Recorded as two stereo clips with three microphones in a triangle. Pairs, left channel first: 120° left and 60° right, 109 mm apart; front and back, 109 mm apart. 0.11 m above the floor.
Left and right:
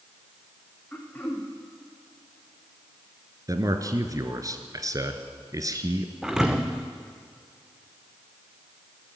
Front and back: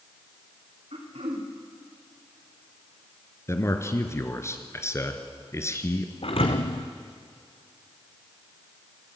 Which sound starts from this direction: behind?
Throat clearing, at 0.9 s.